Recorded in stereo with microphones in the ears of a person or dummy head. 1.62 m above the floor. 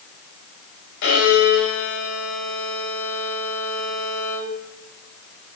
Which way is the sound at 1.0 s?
65° left (ahead or behind).